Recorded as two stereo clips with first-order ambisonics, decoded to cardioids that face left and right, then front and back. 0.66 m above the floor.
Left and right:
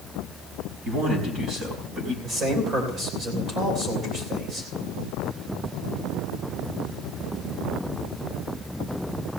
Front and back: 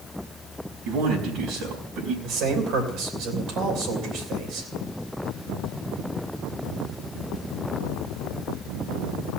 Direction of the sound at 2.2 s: 155° right.